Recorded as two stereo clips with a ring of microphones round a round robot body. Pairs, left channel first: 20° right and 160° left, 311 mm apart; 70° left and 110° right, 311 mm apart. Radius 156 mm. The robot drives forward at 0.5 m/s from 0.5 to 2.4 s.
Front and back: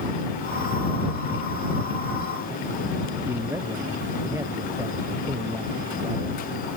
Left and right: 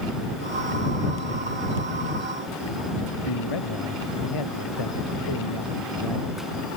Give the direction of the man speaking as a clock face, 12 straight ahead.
9 o'clock.